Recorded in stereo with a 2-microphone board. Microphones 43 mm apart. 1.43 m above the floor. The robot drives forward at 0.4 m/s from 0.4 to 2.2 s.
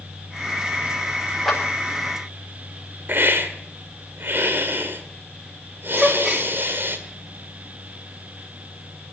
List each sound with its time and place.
1.4 s a clap: centre (ahead or behind), 5.5 m
3.1 s a hiss: 55° right (ahead or behind), 1.7 m
6.0 s a gasp: 15° right (ahead or behind), 1.7 m